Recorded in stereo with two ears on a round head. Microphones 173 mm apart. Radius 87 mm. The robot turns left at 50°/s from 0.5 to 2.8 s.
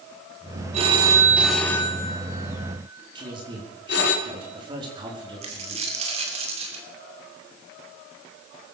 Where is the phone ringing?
35° right (ahead or behind), 3 m; by 4.2 s 60° left (ahead or behind), 3 m.